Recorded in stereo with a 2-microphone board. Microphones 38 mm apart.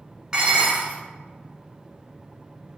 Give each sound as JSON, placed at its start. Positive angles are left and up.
{"t": 0.3, "sound": "dishes clattering", "side_deg": -15, "distance_m": 1.0}